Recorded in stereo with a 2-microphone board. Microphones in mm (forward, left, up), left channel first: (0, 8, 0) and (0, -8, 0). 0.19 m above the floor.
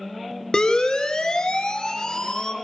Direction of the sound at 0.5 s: 60° left (ahead or behind).